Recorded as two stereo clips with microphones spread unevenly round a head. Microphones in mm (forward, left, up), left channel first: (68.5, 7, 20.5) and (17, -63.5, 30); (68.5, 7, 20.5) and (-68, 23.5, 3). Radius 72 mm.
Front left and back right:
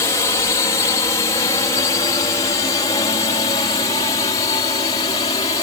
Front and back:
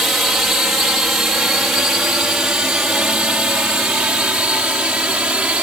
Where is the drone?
90° left; by 5.6 s 95° left.